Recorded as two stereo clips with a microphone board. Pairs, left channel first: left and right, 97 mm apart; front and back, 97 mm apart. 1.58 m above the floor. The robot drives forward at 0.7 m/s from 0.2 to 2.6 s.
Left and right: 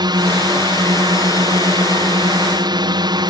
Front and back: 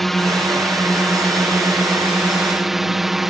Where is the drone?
85° right; by 3.3 s 95° right.